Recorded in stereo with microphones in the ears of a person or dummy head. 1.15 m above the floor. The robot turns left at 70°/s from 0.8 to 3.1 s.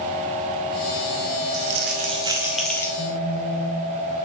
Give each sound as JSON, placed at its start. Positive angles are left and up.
{"t": 1.5, "sound": "crumpling", "azimuth_deg": -110, "distance_m": 0.8}
{"t": 3.0, "sound": "a phone buzzing", "side_deg": 60, "distance_m": 1.0}